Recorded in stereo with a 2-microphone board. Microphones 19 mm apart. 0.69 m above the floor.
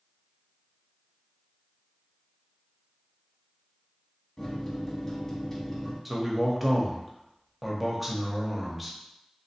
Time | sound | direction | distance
4.4 | a microwave | 15° left (ahead or behind) | 1.0 m
6.0 | a man speaking | 10° right (ahead or behind) | 0.8 m